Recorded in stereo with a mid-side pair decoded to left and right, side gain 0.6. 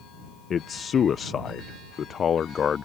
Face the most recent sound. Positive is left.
turn(degrees=40)